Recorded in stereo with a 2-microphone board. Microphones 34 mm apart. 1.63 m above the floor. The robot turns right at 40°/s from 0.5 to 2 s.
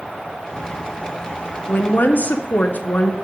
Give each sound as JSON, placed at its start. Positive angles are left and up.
{"t": 1.7, "sound": "a woman speaking", "side_deg": 60, "distance_m": 0.8}